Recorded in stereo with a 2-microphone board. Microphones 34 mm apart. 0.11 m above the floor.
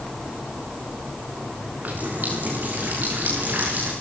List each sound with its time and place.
1.8 s a running tap: 60° right (ahead or behind), 8.5 m